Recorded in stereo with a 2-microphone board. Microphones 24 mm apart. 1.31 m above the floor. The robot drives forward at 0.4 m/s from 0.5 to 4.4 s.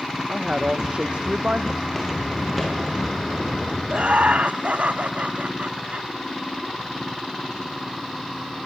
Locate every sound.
0.3 s a woman speaking: 45° right (ahead or behind), 1.2 m; by 1.7 s 70° right (ahead or behind), 1.0 m
1.8 s footsteps: 5° left (ahead or behind), 8 m; by 3.8 s 20° left (ahead or behind), 9 m
3.9 s laughter: 65° right (ahead or behind), 1.8 m; by 6.1 s 70° right (ahead or behind), 1.8 m